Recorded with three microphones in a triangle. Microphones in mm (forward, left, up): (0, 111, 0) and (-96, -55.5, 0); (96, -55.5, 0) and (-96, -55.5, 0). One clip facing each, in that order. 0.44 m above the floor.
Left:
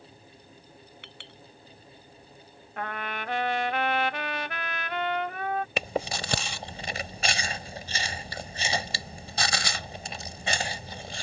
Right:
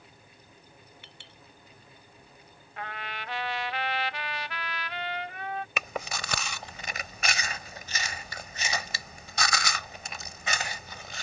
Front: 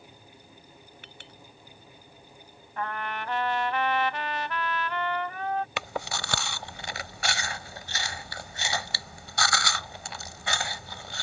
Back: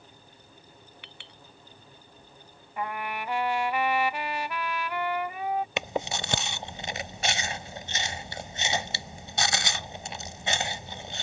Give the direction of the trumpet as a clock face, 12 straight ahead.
9 o'clock.